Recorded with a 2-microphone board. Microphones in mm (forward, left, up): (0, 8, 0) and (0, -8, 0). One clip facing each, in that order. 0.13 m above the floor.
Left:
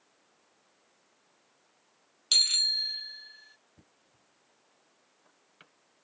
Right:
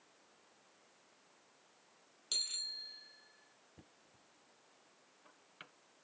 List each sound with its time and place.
2.3 s a bicycle bell: 50° left (ahead or behind); by 3.6 s 70° left (ahead or behind)
3.8 s knocking: 10° right (ahead or behind)